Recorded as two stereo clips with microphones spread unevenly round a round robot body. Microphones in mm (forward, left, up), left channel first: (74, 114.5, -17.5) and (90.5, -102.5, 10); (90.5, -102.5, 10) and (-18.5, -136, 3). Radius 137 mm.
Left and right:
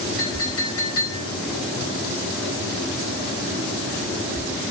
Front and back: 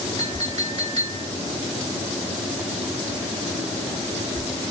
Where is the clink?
135° left, 1.1 m.